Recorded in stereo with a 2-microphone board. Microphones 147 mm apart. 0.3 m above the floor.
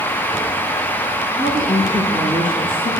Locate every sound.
1.4 s a woman speaking: 40° left (ahead or behind), 3.5 m; by 2.9 s 20° left (ahead or behind), 4.5 m